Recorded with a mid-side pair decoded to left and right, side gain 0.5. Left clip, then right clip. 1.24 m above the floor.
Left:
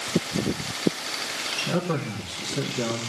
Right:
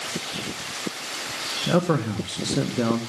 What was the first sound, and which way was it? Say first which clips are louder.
A man speaking: right 5 dB; 40° right.